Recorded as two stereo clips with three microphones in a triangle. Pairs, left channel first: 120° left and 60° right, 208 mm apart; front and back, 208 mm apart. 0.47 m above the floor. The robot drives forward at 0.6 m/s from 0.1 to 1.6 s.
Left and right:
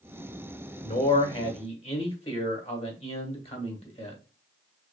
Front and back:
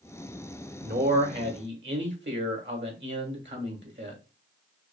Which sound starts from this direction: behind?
A man speaking, at 0.8 s.